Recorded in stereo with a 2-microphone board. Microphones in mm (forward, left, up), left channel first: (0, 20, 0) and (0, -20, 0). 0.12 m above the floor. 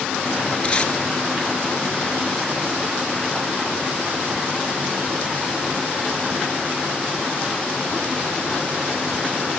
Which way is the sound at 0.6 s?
25° left (ahead or behind).